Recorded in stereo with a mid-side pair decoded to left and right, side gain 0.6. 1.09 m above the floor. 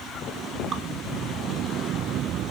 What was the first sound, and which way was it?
Dripping, 40° right.